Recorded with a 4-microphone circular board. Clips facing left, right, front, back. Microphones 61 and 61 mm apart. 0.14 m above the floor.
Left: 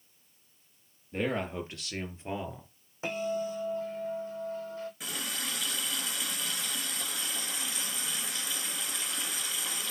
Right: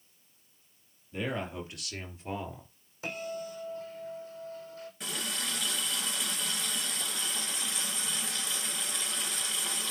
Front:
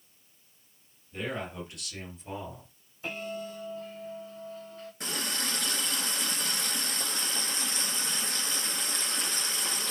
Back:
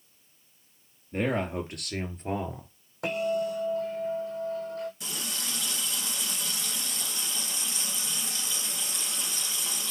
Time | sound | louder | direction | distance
1.1 | a man speaking | left 3 dB, back 7 dB | 140° left | 3.5 m
3.0 | a bell | left 5 dB, back 9 dB | 155° left | 3.5 m
5.0 | a running tap | right 1 dB, front 3 dB | 5° left | 1.5 m